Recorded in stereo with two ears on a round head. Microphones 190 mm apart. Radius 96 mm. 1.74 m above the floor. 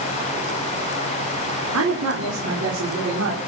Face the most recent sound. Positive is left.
turn(degrees=-75)  # may be behind; listen again after turning